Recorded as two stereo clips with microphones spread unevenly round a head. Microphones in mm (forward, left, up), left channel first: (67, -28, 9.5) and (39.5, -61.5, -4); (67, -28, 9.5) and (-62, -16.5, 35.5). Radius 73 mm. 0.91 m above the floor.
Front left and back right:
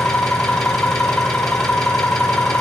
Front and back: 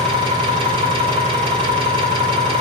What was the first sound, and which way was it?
An engine running, 120° left.